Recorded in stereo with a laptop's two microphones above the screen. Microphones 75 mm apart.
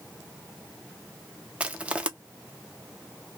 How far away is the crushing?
About 0.5 m.